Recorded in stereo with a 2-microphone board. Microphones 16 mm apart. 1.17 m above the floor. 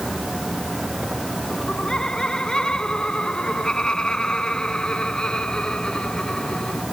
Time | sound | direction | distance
1.5 | laughter | 60° left (ahead or behind) | ?